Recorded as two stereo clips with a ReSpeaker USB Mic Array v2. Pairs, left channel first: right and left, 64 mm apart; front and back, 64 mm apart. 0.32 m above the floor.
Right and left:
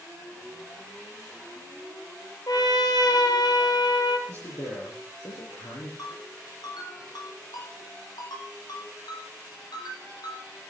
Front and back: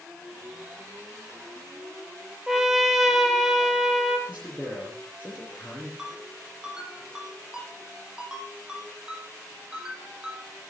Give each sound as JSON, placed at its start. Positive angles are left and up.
{"t": 2.5, "sound": "a trumpet", "azimuth_deg": -95, "distance_m": 2.5}
{"t": 4.3, "sound": "a man speaking", "azimuth_deg": -65, "distance_m": 7.0}
{"t": 6.0, "sound": "a ringtone", "azimuth_deg": -100, "distance_m": 8.0}